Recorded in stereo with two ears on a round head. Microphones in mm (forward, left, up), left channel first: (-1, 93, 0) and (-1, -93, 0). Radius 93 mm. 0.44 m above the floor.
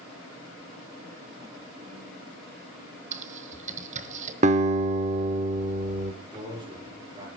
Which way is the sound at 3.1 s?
35° right (ahead or behind).